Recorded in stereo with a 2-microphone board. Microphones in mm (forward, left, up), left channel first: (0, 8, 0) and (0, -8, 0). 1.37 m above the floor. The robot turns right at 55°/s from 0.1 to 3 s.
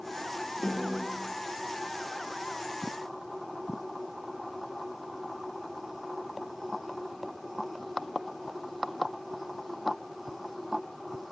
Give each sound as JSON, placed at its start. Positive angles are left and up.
{"t": 0.6, "sound": "a snare drum", "side_deg": 80, "distance_m": 3.0}